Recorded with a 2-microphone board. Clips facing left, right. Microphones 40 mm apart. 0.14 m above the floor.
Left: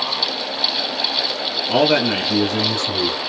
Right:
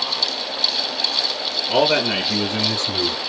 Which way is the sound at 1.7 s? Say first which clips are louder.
Left 1 dB; 20° left (ahead or behind).